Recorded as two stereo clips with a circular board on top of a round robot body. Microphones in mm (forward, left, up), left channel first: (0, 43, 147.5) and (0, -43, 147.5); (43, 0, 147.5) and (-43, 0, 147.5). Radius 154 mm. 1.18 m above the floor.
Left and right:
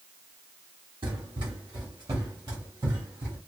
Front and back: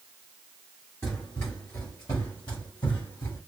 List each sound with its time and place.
1.0 s running footsteps: 65° right, 1.3 m; by 3.4 s 30° right, 2 m